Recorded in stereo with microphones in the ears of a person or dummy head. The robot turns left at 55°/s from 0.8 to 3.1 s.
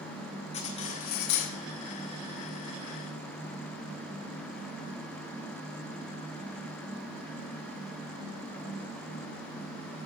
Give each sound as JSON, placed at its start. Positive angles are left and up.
{"t": 0.5, "sound": "cutlery clinking", "azimuth_deg": 135, "distance_m": 1.0}